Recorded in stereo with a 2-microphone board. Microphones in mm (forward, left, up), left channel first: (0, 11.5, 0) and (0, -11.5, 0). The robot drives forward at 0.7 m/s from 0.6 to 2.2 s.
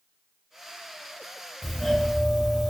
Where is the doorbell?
Centre (ahead or behind), 1.8 m.